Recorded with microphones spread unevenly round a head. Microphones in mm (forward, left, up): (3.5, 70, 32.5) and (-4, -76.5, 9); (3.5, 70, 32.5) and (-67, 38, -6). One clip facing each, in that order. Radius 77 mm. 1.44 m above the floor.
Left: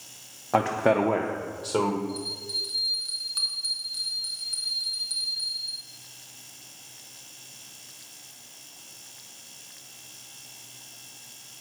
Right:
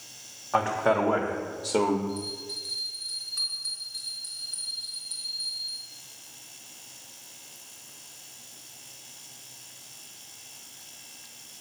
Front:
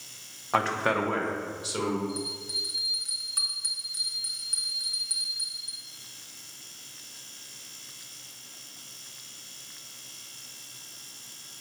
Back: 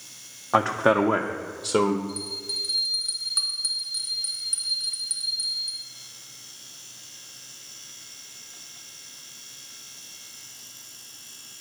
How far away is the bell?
About 4 m.